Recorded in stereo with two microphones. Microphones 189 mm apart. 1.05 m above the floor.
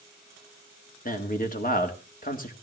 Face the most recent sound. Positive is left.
turn(degrees=50)  # may be behind; listen again after turning